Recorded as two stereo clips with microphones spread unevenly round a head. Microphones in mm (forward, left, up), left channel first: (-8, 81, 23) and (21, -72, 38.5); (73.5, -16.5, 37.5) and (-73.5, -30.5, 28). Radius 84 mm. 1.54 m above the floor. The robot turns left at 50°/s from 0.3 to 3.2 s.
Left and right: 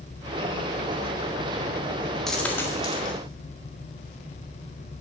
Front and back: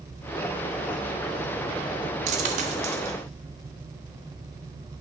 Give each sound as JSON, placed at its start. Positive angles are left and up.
{"t": 2.3, "sound": "a dropped coin", "azimuth_deg": -165, "distance_m": 1.0}